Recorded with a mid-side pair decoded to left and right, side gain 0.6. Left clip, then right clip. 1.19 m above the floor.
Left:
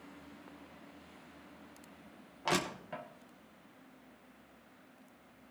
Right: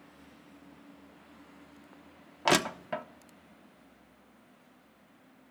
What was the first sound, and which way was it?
Crushing, 50° right.